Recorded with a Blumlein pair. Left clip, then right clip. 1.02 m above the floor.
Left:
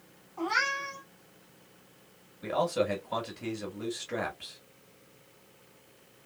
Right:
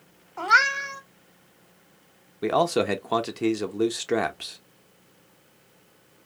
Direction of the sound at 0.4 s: 55° right.